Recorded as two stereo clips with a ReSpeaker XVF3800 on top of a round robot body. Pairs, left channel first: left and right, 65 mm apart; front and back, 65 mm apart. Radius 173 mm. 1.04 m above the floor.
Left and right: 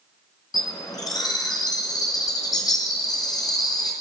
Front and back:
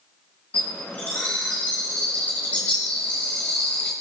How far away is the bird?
About 1.4 m.